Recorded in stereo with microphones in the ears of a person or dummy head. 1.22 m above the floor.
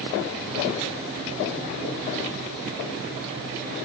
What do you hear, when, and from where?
Only background noise.